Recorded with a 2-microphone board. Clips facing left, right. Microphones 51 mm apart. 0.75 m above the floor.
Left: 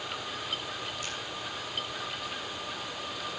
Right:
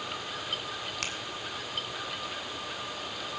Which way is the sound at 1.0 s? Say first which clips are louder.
Right 2 dB; 80° right.